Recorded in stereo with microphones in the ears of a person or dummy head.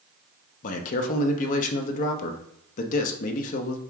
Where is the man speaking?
45° left (ahead or behind), 0.7 m.